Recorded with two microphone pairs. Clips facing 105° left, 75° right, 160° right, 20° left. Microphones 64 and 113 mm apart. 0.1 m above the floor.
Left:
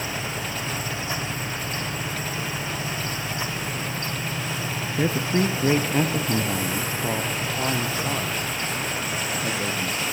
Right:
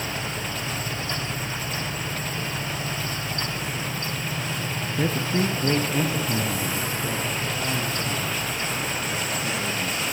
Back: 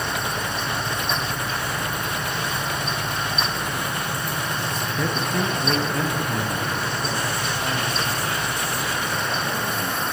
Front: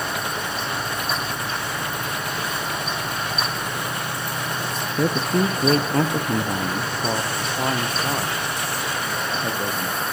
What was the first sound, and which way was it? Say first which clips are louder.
A man speaking: left 2 dB, front 5 dB; 35° left.